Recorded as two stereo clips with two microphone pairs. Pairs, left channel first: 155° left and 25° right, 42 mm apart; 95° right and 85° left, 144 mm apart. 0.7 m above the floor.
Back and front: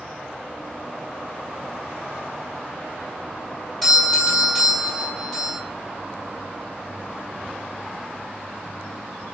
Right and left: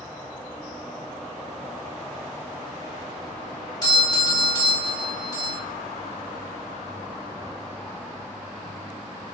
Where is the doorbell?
125° right, 1.4 m.